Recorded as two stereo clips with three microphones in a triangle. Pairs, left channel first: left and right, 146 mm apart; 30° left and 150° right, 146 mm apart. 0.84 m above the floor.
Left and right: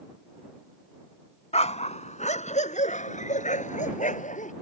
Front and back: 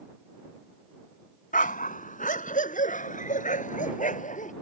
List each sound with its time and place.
1.5 s a dog barking: 50° left; by 4.5 s 60° left